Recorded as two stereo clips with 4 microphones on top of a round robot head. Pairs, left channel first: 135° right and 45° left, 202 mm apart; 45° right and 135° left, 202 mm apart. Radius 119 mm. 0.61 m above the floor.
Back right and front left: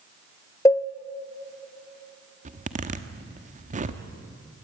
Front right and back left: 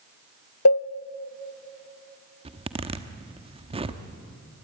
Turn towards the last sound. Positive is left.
turn(degrees=80)